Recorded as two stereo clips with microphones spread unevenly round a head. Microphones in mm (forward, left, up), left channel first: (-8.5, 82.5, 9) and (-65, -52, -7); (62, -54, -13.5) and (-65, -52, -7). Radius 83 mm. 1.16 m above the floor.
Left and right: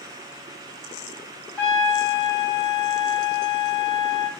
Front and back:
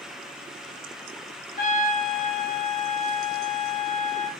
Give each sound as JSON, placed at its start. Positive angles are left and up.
{"t": 1.6, "sound": "a trumpet", "azimuth_deg": -20, "distance_m": 2.5}